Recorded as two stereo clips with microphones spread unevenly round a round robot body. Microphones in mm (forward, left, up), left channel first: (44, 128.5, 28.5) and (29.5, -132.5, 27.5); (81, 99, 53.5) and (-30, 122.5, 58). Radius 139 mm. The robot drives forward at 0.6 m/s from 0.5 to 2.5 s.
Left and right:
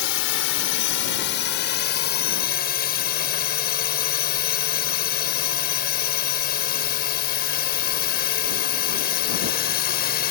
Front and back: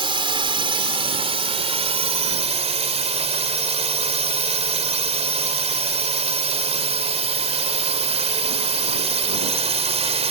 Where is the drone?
130° left; by 10.3 s 145° left.